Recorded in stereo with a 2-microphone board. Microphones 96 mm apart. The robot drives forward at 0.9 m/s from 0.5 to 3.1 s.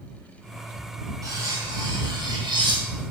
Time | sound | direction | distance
1.2 | cutlery clinking | 35° right (ahead or behind) | 1.7 m